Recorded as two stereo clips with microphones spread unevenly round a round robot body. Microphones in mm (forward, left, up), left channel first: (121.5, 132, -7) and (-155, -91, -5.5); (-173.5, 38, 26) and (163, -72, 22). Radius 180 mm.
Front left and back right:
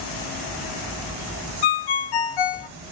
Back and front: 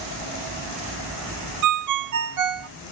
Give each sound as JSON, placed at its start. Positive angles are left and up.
{"t": 1.6, "sound": "a ringtone", "azimuth_deg": 20, "distance_m": 0.7}